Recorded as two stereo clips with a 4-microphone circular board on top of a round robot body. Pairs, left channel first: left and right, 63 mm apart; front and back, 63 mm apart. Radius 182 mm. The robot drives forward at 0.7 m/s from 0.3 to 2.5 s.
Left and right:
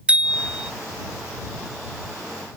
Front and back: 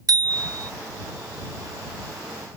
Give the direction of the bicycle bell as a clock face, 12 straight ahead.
5 o'clock.